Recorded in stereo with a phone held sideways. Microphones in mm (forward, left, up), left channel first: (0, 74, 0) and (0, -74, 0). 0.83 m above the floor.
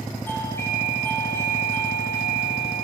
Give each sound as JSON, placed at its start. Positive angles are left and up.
{"t": 0.3, "sound": "a doorbell", "side_deg": 15, "distance_m": 7.0}